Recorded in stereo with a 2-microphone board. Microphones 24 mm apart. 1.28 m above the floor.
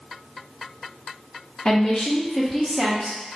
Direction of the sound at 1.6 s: 40° left (ahead or behind).